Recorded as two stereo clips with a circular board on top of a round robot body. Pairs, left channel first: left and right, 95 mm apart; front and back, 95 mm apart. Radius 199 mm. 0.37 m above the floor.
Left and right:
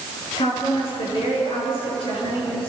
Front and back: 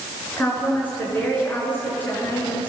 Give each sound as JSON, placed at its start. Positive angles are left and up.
{"t": 0.4, "sound": "a woman speaking", "azimuth_deg": 70, "distance_m": 7.0}